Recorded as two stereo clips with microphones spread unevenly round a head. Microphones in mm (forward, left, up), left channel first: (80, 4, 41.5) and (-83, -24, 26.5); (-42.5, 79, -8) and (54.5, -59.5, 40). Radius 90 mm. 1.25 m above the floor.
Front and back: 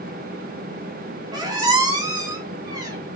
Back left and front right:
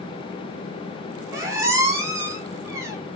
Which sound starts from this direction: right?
A squeak, at 1.3 s.